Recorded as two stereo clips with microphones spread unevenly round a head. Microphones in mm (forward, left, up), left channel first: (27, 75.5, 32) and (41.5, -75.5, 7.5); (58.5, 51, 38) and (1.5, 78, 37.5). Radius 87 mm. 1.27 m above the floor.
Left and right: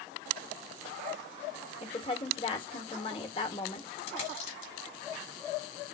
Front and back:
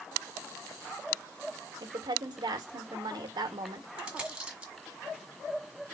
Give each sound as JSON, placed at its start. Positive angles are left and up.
{"t": 1.8, "sound": "a woman speaking", "azimuth_deg": 160, "distance_m": 1.5}
{"t": 4.0, "sound": "a dropped coin", "azimuth_deg": 85, "distance_m": 1.7}